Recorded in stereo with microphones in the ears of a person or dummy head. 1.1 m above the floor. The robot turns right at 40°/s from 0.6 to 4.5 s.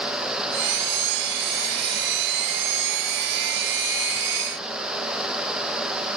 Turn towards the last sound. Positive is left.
No sound to turn to.